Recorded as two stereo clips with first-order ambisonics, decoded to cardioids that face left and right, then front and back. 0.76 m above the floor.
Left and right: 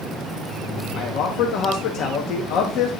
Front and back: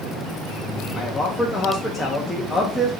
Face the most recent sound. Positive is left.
turn(degrees=85)